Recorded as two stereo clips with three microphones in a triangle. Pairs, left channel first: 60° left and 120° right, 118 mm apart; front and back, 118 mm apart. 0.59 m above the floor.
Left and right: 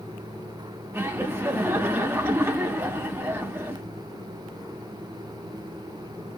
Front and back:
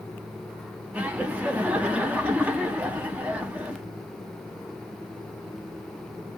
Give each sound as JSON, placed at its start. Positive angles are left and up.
{"t": 0.9, "sound": "laughter", "azimuth_deg": -130, "distance_m": 0.6}